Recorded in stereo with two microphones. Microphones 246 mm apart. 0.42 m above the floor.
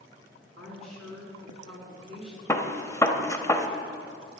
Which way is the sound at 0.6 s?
60° right (ahead or behind).